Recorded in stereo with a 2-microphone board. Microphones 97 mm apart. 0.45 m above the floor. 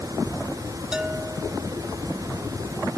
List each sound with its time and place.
0.9 s a bell: 10° right (ahead or behind)